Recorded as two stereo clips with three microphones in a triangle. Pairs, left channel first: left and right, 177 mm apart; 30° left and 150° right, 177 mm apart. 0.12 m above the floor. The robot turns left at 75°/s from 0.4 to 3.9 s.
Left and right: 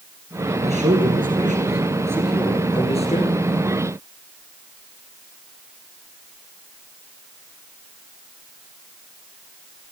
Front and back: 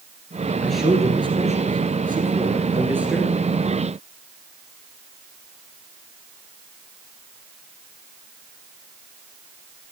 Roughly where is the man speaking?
Ahead right.